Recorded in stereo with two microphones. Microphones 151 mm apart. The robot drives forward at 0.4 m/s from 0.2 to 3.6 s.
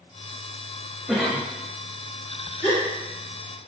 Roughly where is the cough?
Centre.